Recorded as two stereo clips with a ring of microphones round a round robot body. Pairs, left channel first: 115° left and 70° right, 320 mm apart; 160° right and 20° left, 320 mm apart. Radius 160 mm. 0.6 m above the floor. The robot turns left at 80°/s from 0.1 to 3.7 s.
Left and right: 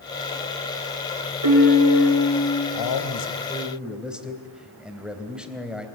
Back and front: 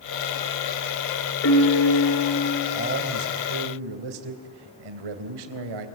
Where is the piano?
100° right, 8.5 m; by 2.6 s 160° left, 8.5 m.